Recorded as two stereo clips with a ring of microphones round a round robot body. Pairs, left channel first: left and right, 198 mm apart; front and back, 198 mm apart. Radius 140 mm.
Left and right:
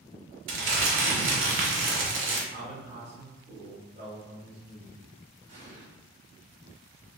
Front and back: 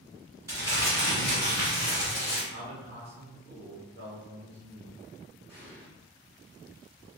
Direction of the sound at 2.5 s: 155° right.